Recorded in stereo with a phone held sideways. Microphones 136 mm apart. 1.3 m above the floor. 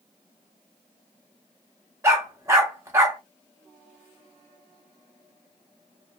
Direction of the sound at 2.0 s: 20° right (ahead or behind).